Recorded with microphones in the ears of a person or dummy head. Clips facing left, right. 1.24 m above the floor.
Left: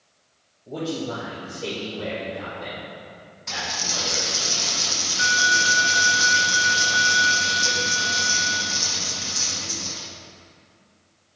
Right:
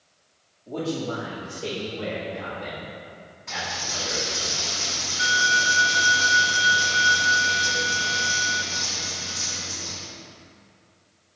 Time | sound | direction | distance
0.7 | a man speaking | 10° left (ahead or behind) | 1.1 m
3.5 | a dropped coin | 50° left (ahead or behind) | 0.8 m